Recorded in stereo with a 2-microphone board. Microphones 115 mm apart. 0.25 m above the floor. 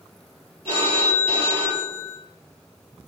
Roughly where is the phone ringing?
Right.